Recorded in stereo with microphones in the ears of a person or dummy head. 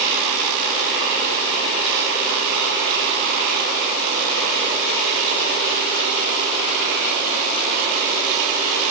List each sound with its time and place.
Only background noise.